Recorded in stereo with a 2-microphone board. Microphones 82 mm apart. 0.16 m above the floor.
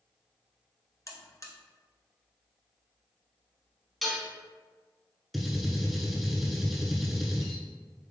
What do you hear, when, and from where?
1.1 s a buzzer: 40° left (ahead or behind), 0.6 m
4.0 s dishes clattering: centre (ahead or behind), 0.8 m
5.3 s a gunshot: centre (ahead or behind), 0.7 m